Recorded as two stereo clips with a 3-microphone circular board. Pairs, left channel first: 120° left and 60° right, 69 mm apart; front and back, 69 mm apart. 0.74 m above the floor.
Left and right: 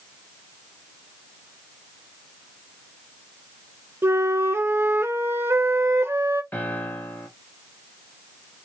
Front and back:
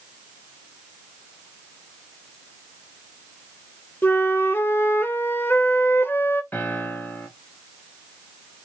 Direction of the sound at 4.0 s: 40° right.